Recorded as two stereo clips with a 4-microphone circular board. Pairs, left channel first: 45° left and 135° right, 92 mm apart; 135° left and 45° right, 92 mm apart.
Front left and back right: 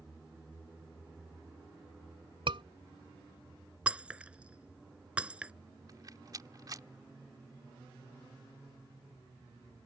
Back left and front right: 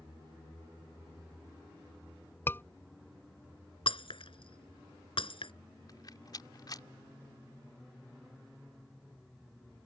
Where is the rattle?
Straight behind.